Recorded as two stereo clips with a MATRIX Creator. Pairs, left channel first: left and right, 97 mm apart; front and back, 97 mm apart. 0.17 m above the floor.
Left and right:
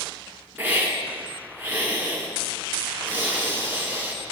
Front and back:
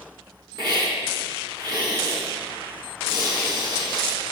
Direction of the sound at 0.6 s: 155° right.